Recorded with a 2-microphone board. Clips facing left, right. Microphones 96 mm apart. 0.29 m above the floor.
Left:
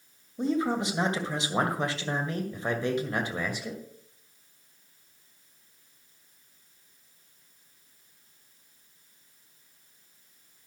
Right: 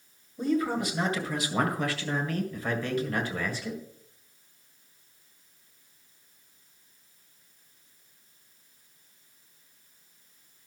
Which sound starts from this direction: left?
A man speaking, at 0.4 s.